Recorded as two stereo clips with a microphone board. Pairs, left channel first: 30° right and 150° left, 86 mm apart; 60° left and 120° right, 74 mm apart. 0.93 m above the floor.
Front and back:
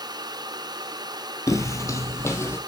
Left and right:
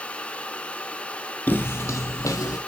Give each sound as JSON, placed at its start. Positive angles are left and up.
{"t": 1.5, "sound": "footsteps", "azimuth_deg": 5, "distance_m": 1.2}